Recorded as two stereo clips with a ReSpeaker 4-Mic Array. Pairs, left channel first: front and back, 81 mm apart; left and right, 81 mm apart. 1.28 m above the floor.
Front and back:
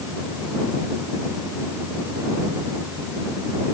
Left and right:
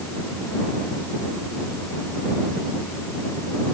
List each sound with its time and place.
Only background noise.